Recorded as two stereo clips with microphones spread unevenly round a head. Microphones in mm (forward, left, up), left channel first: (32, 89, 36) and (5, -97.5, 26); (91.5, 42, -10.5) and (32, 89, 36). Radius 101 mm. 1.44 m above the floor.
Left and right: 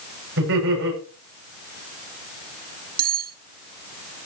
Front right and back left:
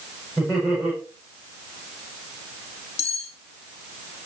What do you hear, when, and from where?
0.4 s laughter: 130° right, 8 m
3.0 s cutlery clinking: 60° right, 1.1 m